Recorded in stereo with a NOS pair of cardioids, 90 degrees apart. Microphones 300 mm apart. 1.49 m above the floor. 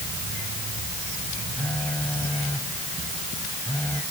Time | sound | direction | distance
1.6 | a phone buzzing | 5° left | ?